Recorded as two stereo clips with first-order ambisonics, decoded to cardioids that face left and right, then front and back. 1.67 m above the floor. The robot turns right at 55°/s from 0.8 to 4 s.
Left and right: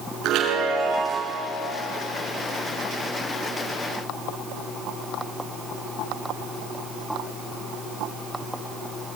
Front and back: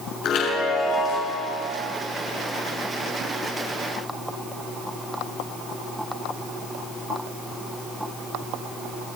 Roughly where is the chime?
Ahead right.